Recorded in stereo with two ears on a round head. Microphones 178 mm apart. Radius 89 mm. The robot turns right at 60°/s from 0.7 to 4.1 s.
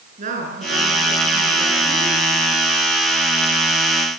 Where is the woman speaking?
40° right, 8 m; by 2.2 s 50° left, 8 m.